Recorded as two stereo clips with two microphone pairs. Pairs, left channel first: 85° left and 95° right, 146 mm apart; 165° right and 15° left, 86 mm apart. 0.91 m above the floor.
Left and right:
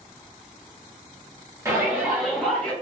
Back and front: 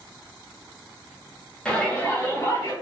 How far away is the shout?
About 0.7 m.